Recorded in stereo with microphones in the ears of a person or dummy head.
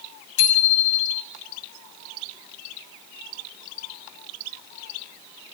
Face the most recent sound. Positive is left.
turn(degrees=75)  # may be behind; listen again after turning